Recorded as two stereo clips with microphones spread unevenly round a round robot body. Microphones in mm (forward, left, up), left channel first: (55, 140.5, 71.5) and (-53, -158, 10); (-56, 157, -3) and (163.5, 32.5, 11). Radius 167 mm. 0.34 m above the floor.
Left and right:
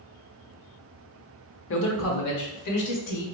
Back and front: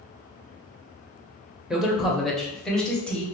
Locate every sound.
1.7 s a man speaking: 60° left, 1.0 m; by 3.2 s 65° left, 1.5 m